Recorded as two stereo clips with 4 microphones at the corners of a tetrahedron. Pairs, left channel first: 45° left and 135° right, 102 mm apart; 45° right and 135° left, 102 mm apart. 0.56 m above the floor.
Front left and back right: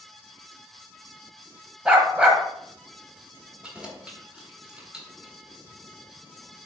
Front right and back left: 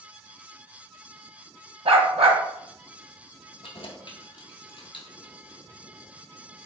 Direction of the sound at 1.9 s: 145° left.